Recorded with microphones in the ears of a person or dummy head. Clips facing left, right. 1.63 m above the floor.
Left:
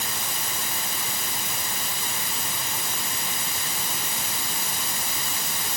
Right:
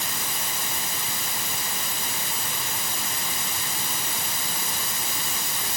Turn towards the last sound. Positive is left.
No sound to turn to.